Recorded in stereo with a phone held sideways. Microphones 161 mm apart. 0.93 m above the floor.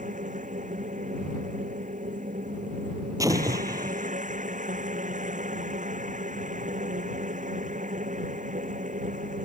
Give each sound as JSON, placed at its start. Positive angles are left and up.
{"t": 0.0, "sound": "a machine running", "side_deg": -50}
{"t": 3.2, "sound": "an explosion", "side_deg": -20}